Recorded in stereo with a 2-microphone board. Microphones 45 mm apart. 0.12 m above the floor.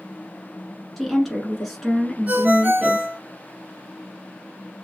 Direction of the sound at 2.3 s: 35° right (ahead or behind).